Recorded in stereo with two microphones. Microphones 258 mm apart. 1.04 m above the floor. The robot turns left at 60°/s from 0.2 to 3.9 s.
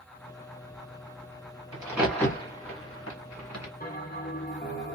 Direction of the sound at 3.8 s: 35° left (ahead or behind).